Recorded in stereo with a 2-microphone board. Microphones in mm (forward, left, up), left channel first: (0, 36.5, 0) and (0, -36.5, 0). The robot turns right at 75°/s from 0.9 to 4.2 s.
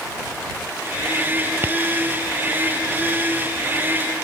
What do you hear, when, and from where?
1.6 s tapping: 30° right (ahead or behind); by 1.8 s 40° right (ahead or behind)